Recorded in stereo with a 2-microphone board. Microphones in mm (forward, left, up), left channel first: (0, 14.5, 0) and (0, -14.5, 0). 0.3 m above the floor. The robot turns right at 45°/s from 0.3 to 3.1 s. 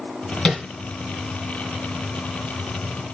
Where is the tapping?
25° left (ahead or behind), 2.5 m; by 0.6 s 15° left (ahead or behind), 2.5 m.